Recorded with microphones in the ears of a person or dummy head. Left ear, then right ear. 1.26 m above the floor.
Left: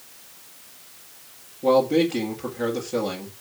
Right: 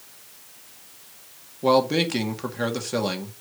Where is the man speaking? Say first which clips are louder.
Left 1 dB; 40° right (ahead or behind), 1.8 m.